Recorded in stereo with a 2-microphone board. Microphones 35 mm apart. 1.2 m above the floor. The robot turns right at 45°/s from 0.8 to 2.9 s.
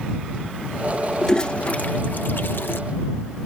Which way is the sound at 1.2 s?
15° left (ahead or behind).